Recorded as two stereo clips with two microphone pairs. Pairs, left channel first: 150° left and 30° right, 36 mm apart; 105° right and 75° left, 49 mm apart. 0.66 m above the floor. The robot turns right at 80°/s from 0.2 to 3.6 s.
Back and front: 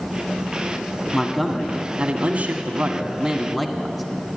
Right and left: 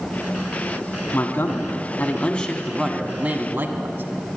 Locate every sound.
1.1 s a man speaking: 135° right, 1.2 m; by 4.0 s 65° left, 1.2 m